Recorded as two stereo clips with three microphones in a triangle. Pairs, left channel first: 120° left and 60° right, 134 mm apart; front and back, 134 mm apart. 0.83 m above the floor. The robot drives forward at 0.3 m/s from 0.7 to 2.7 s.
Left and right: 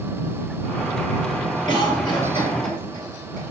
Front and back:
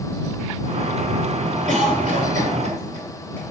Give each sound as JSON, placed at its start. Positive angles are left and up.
{"t": 1.7, "sound": "a cough", "azimuth_deg": 175, "distance_m": 2.5}